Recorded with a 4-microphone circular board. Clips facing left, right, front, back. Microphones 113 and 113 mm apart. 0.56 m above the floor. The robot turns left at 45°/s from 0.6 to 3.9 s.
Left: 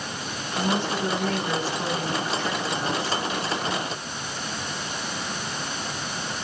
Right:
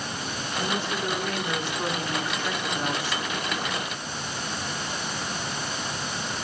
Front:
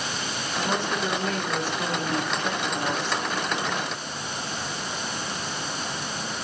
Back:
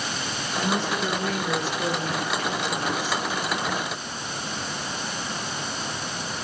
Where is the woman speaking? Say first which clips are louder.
Left 4 dB, back 1 dB; 85° left, 4.5 m; by 3.2 s 35° right, 4.5 m.